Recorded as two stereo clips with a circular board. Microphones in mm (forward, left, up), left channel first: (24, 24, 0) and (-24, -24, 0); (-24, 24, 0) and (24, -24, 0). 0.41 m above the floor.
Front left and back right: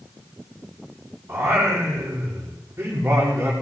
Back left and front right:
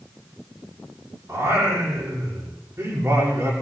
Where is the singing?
85° right, 7.5 m.